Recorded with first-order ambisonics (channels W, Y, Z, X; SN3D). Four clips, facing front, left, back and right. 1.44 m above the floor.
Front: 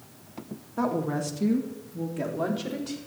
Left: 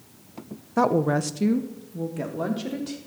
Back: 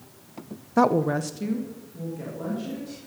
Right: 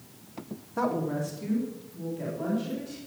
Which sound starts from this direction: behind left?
A woman speaking, at 0.8 s.